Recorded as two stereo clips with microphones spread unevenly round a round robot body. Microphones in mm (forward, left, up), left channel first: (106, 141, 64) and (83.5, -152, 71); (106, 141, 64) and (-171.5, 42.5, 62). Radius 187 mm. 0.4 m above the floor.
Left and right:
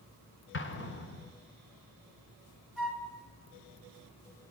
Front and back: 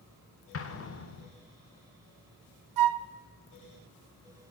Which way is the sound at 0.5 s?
50° left.